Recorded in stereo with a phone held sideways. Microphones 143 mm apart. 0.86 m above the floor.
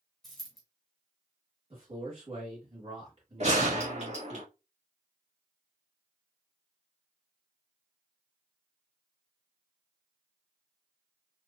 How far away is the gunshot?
About 1.6 m.